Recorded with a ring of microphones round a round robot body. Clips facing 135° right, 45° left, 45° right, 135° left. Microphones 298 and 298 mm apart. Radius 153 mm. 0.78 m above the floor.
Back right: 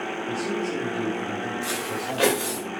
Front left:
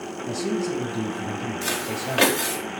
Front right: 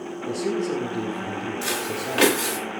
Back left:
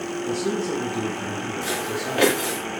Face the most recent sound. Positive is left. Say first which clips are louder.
# front left 1 dB, back left 1 dB
turn(degrees=25)